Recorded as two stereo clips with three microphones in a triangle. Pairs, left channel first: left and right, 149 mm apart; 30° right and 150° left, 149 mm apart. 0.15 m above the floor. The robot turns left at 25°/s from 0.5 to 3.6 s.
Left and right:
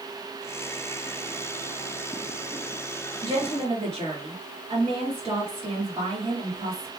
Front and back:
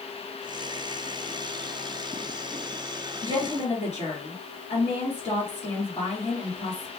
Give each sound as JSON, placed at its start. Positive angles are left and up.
{"t": 3.2, "sound": "a woman speaking", "azimuth_deg": -40, "distance_m": 2.0}